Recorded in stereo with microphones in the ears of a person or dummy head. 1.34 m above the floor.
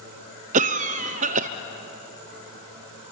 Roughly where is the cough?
Right.